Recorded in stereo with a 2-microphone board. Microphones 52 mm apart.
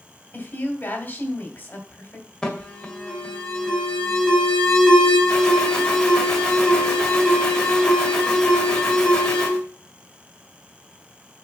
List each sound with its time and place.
0.3 s a woman speaking: 40° left (ahead or behind), 2 m
2.4 s an alarm: 15° left (ahead or behind), 1.9 m